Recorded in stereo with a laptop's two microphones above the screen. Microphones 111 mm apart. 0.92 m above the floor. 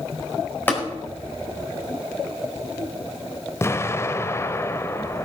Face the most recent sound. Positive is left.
turn(degrees=25)  # may be behind; listen again after turning